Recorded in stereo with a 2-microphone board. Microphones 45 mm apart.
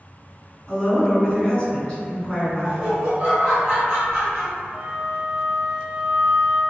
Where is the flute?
10° right (ahead or behind), 1.5 m.